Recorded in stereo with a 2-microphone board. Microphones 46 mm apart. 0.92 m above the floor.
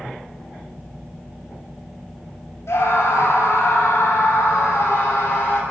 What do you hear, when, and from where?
2.7 s a scream: 70° left (ahead or behind), 6.5 m; by 5.6 s 55° left (ahead or behind), 8 m